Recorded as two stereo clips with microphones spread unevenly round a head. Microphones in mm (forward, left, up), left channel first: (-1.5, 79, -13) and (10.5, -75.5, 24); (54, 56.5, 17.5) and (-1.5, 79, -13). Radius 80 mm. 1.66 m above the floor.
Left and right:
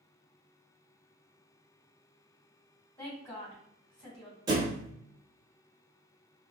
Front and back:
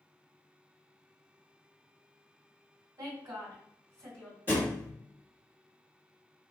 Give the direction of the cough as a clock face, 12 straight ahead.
I don't hear a cough.